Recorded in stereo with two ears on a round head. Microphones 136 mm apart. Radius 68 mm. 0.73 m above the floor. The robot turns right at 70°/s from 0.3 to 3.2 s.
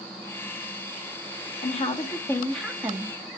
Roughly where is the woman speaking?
Left.